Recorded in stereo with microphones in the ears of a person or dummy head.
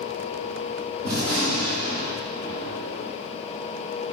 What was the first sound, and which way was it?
A gunshot, 55° right (ahead or behind).